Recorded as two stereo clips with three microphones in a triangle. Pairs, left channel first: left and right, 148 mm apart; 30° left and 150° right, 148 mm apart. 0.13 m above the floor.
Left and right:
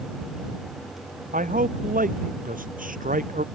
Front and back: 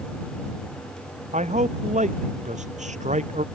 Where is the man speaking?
115° right.